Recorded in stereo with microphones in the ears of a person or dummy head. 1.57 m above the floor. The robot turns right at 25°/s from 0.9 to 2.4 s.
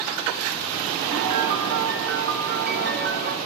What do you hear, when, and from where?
1.1 s a piano: 105° right, 0.9 m; by 3.4 s 70° right, 0.9 m